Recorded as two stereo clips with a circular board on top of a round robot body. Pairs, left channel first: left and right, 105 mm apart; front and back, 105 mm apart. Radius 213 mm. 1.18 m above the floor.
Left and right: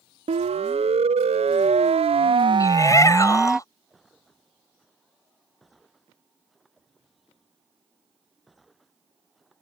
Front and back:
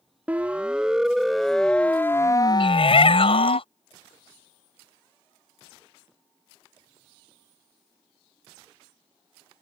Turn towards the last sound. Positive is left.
turn(degrees=30)